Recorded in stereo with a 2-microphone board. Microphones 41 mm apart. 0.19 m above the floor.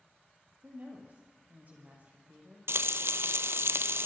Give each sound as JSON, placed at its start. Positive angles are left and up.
{"t": 0.6, "sound": "a woman speaking", "side_deg": -40, "distance_m": 7.0}
{"t": 2.7, "sound": "frying", "side_deg": -70, "distance_m": 1.1}